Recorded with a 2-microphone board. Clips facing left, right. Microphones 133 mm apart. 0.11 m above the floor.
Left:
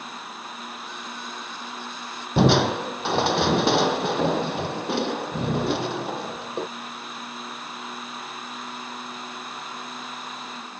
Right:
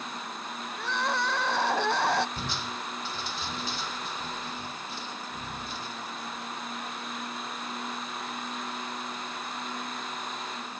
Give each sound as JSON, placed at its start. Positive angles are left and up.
{"t": 0.8, "sound": "crying", "side_deg": -75}
{"t": 2.4, "sound": "crushing", "side_deg": 70}